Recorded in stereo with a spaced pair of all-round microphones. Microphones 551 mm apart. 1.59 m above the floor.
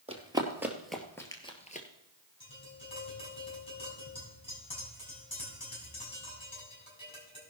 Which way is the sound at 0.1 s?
10° right (ahead or behind).